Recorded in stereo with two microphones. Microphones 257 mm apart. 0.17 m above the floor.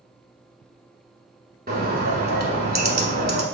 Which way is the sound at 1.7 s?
35° right (ahead or behind).